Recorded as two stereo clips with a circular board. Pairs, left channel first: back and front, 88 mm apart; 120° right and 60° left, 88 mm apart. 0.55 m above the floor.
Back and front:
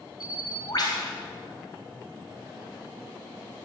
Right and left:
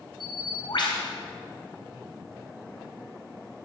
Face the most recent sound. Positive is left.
turn(degrees=-145)